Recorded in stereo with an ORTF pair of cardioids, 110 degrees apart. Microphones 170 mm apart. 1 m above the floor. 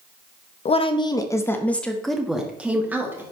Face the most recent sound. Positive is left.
turn(degrees=-15)